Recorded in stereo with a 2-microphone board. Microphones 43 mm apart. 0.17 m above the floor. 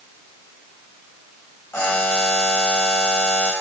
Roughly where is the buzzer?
Left.